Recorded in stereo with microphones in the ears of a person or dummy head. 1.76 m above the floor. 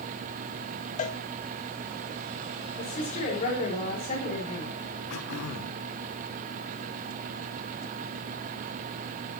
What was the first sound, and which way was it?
A cowbell, 40° left (ahead or behind).